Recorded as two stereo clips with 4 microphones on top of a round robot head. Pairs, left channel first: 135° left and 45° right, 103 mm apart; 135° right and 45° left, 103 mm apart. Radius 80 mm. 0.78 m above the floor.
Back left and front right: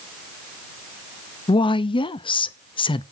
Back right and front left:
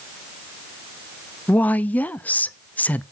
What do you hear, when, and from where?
1.5 s a woman speaking: 150° left, 0.6 m